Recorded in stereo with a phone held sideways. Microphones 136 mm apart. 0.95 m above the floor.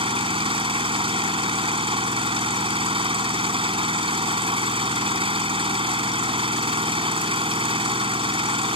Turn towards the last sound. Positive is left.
turn(degrees=-40)  # may be behind; listen again after turning